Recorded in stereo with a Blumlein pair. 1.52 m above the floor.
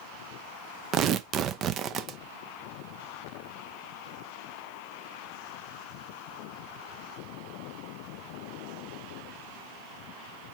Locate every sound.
0.9 s tearing paper: 30° right, 0.6 m